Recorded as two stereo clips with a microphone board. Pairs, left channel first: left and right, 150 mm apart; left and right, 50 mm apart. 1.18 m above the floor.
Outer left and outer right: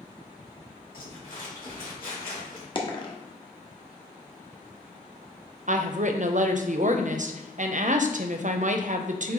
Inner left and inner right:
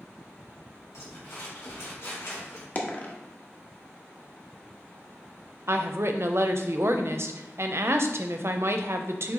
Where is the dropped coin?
30° left (ahead or behind), 0.8 m.